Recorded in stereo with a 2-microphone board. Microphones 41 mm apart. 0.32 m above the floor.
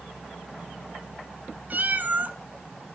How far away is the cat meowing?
About 1.1 m.